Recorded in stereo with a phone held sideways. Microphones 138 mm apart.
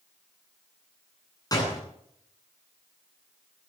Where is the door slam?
30° left (ahead or behind), 9.5 m.